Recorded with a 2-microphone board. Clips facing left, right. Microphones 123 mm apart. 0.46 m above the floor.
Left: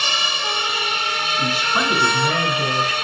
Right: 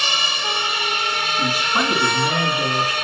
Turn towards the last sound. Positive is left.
turn(degrees=-15)  # may be behind; listen again after turning